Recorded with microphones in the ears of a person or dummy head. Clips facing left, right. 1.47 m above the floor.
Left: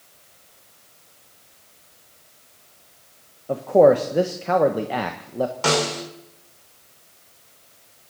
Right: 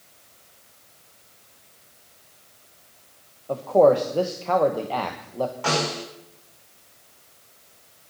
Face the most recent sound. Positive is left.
turn(degrees=65)  # may be behind; listen again after turning